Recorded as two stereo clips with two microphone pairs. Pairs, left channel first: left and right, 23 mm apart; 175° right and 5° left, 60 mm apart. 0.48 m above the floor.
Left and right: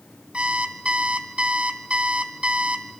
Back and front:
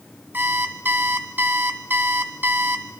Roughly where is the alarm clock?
Ahead right.